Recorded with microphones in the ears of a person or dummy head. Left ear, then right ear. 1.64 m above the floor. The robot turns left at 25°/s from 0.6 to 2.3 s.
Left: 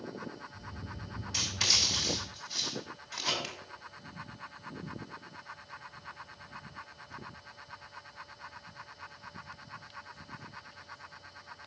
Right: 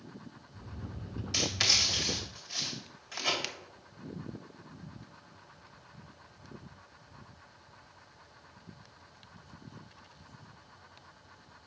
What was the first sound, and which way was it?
Writing, 60° right (ahead or behind).